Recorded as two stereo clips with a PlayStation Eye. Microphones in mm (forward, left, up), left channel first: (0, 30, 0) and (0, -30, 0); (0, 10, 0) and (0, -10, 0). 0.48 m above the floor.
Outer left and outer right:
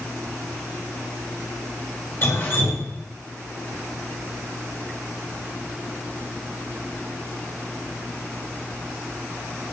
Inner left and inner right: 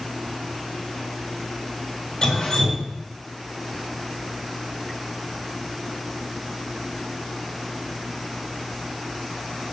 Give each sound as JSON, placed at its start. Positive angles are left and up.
{"t": 2.2, "sound": "dripping", "side_deg": 45, "distance_m": 2.0}